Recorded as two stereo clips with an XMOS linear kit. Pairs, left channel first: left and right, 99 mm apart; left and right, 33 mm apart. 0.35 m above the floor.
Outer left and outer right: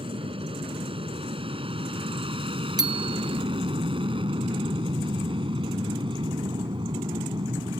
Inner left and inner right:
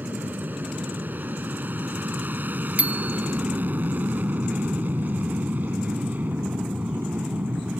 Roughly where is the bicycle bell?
Right.